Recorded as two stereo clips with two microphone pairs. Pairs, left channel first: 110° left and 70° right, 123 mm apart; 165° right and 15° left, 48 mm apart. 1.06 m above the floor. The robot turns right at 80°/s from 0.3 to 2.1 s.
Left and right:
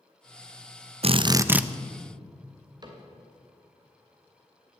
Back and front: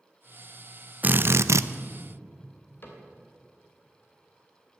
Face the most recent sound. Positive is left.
turn(degrees=-125)